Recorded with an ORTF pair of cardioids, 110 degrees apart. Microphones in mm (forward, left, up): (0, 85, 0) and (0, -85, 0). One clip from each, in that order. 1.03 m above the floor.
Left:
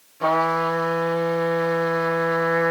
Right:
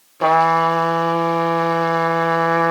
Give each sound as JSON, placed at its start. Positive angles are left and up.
{"t": 0.2, "sound": "a trumpet", "azimuth_deg": -40, "distance_m": 0.9}